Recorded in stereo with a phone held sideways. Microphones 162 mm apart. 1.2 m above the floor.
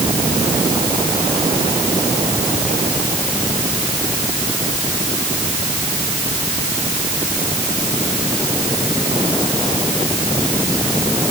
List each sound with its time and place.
Only background noise.